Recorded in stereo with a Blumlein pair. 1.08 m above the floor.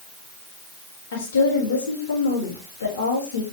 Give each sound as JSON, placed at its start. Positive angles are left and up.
{"t": 1.1, "sound": "a woman speaking", "azimuth_deg": 65, "distance_m": 4.0}